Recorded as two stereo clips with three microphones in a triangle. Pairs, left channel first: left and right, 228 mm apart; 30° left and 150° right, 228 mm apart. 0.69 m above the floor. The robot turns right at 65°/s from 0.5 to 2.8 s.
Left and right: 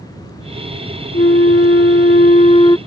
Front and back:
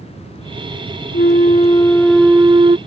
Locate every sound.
1.1 s a flute: 50° left; by 2.8 s 160° left